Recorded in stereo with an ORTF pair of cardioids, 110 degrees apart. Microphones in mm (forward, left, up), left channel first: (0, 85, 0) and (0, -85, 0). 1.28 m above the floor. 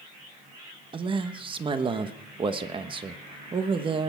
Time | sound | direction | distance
0.9 | a man speaking | 30° right | 1.2 m